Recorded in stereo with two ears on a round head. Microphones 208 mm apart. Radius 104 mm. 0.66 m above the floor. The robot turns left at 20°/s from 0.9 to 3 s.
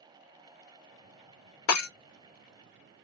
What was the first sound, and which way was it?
Breaking glass, 70° left (ahead or behind).